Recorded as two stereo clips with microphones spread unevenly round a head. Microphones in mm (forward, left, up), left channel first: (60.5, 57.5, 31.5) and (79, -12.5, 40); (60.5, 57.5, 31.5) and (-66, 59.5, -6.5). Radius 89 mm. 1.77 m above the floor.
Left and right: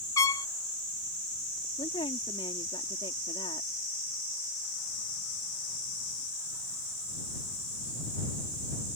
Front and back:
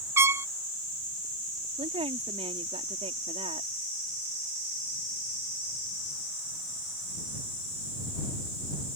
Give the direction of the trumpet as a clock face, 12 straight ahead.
9 o'clock.